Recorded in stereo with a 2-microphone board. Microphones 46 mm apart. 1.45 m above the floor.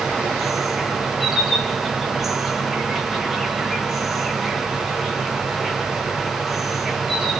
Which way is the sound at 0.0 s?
5° right (ahead or behind).